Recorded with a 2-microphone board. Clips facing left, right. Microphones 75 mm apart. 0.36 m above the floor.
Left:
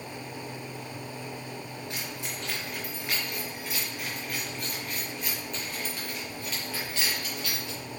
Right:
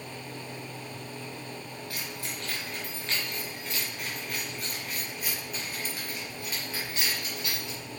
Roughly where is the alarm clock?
No alarm clock in this recording.